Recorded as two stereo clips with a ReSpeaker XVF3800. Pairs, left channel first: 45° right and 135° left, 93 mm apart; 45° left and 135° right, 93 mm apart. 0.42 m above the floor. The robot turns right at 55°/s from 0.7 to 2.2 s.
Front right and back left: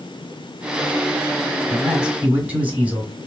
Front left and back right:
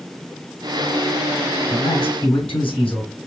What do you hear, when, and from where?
1.7 s a man speaking: 35° left, 2.5 m; by 3.1 s 60° left, 2.5 m